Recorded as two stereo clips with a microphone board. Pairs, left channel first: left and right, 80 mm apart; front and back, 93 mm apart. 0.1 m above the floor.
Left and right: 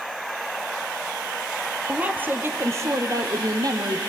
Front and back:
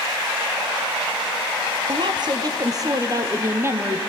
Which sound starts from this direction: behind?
A woman speaking, at 1.9 s.